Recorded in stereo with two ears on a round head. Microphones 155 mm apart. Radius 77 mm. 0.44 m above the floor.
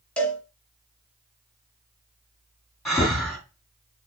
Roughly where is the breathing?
Centre.